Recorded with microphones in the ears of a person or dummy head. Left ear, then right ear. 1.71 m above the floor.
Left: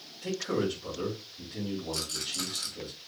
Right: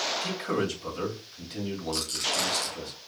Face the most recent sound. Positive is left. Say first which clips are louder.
# right 6 dB
turn(degrees=-25)  # may be behind; listen again after turning